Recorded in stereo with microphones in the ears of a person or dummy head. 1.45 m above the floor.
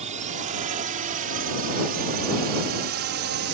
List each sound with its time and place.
0.0 s a drone: 40° right (ahead or behind); by 3.5 s 60° right (ahead or behind)